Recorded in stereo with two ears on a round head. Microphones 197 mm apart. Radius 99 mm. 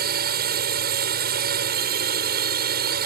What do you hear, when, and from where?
0.0 s a drone: 45° right (ahead or behind)